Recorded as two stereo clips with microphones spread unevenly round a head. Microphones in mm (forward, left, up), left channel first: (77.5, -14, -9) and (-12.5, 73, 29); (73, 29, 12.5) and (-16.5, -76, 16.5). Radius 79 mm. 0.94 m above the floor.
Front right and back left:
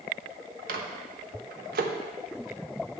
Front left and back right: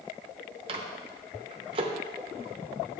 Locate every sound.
0.7 s a microwave: 175° left, 0.7 m